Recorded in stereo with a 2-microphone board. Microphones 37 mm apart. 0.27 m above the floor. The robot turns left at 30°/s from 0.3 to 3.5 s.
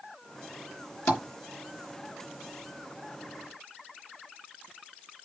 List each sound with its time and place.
1.1 s tapping: 40° left (ahead or behind), 3 m; by 1.2 s 35° left (ahead or behind), 3 m